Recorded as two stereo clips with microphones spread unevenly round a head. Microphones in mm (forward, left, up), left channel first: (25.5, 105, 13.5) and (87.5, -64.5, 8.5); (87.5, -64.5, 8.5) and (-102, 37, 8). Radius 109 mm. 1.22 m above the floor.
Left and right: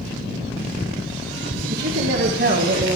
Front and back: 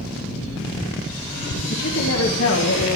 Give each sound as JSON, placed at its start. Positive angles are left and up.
{"t": 1.7, "sound": "a woman speaking", "azimuth_deg": -55, "distance_m": 1.4}